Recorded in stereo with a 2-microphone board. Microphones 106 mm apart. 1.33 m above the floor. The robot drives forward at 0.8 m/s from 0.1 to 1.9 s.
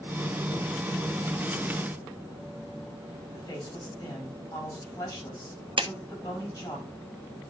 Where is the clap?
60° right (ahead or behind), 0.7 m.